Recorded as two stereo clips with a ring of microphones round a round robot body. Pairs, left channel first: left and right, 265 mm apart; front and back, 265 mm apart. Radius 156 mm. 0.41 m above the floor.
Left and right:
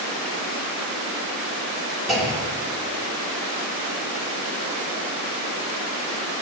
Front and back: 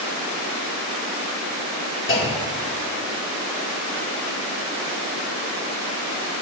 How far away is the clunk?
About 1.7 m.